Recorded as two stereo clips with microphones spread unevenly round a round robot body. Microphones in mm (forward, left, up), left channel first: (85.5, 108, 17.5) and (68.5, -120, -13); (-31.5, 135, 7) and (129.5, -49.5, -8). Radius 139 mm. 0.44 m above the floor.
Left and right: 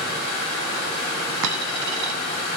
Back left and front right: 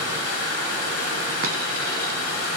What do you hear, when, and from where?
0.0 s running water: 140° left, 1.9 m
1.4 s a dropped coin: 110° right, 0.7 m